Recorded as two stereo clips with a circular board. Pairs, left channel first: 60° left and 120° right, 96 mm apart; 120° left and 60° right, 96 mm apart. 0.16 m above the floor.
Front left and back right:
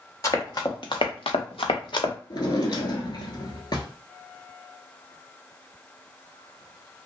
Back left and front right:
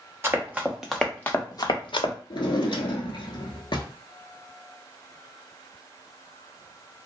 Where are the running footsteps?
5° left, 1.2 m; by 2.1 s 105° left, 1.0 m.